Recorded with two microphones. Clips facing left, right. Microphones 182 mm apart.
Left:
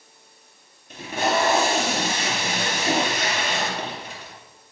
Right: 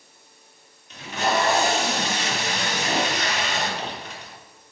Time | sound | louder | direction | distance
0.9 | tape being pulled | left 1 dB | 50° left (ahead or behind) | 3 m